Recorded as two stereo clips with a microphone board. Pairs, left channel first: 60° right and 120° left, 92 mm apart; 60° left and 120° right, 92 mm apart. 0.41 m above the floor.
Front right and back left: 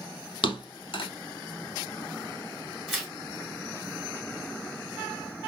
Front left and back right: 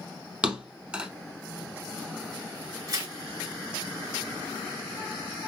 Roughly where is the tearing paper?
Behind right.